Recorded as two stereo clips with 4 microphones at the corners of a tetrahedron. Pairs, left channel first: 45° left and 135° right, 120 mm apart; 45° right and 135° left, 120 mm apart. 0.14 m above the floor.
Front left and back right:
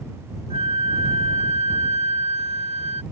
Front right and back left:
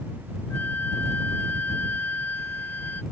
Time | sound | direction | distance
0.5 | a flute | 115° right | ?